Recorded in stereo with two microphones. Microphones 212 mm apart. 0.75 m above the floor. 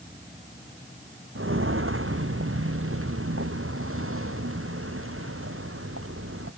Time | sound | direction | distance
1.4 | footsteps | 75° right (ahead or behind) | ?